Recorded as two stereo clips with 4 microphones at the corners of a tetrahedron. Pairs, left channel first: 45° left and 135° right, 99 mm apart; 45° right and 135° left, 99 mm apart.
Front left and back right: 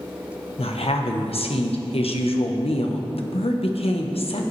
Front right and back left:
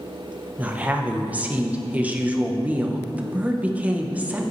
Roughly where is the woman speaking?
Ahead left.